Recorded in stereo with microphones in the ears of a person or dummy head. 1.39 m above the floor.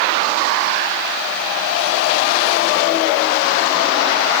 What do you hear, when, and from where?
Only background noise.